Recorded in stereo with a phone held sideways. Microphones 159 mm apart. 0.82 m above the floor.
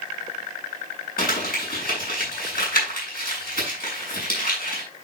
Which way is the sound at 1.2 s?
65° left (ahead or behind).